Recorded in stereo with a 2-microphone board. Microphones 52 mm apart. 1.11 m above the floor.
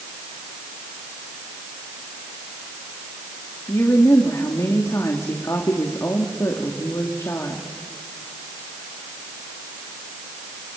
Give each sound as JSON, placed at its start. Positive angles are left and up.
{"t": 3.7, "sound": "a woman speaking", "side_deg": 80, "distance_m": 2.0}